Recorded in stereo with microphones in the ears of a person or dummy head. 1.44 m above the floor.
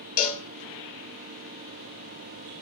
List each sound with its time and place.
0.2 s a cowbell: 50° left (ahead or behind), 0.6 m